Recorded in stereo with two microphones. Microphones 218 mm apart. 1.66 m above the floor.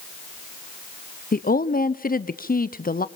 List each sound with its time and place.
1.3 s a woman speaking: 40° left (ahead or behind), 0.6 m